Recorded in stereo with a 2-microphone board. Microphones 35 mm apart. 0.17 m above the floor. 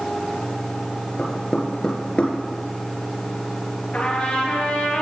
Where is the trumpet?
40° left (ahead or behind), 3 m.